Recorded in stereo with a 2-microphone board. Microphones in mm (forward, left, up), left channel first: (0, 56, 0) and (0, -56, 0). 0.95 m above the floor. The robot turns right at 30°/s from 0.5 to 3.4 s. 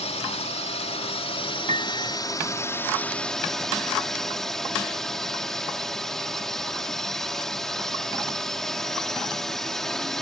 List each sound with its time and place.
0.0 s a drone: 90° left; by 10.2 s 175° left
1.7 s a piano: 75° right (ahead or behind); by 2.2 s 60° right (ahead or behind)